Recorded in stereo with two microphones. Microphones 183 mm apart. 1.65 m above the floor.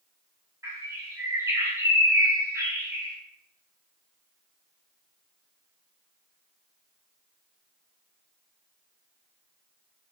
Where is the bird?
15° right (ahead or behind), 0.9 m.